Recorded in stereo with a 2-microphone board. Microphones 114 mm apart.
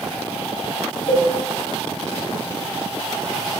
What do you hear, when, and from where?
1.1 s a cowbell: 85° left, 9 m